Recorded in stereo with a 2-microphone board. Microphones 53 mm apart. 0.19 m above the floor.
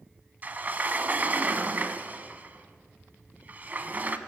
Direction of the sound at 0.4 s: 35° right (ahead or behind).